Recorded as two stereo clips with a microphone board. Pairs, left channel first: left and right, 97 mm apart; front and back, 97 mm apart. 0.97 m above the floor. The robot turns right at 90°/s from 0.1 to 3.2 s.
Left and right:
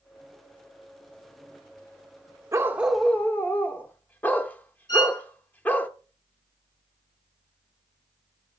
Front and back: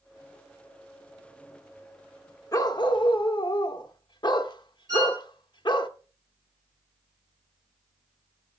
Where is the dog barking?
40° right, 0.8 m; by 5.9 s 25° left, 0.8 m.